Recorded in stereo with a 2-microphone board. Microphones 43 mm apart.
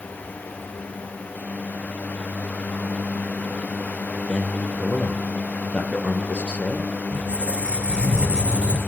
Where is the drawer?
No drawer in this recording.